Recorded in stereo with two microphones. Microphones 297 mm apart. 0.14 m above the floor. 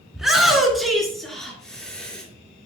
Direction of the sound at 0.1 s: Centre (ahead or behind).